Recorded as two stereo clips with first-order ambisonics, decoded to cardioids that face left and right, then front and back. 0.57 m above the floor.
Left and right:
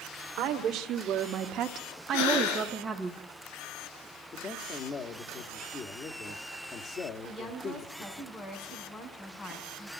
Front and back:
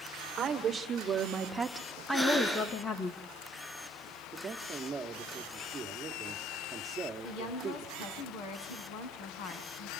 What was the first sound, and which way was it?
A woman speaking, 120° right.